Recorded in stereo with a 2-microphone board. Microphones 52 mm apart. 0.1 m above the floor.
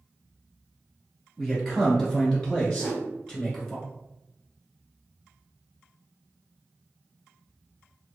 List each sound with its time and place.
1.4 s a man speaking: 10° left (ahead or behind), 1.5 m; by 3.8 s 15° left (ahead or behind), 1.2 m
2.8 s a whoosh: 25° left (ahead or behind), 1.1 m